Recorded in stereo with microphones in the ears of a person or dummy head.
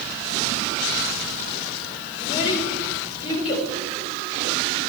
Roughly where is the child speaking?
Left.